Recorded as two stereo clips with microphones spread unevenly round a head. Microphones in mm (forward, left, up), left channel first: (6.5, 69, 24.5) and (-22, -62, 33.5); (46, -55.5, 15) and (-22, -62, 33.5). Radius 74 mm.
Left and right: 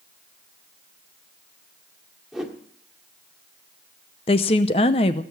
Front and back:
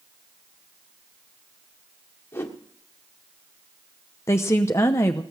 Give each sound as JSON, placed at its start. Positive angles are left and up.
{"t": 2.3, "sound": "a whoosh", "azimuth_deg": -30, "distance_m": 1.4}
{"t": 4.3, "sound": "a woman speaking", "azimuth_deg": 75, "distance_m": 0.7}